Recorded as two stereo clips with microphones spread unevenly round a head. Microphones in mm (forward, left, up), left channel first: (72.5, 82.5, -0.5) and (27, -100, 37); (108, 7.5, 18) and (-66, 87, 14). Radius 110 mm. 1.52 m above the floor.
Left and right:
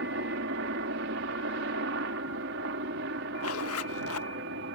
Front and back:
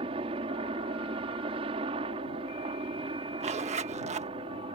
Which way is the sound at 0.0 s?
140° right.